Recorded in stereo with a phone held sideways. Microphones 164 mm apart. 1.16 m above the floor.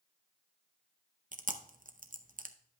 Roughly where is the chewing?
Right.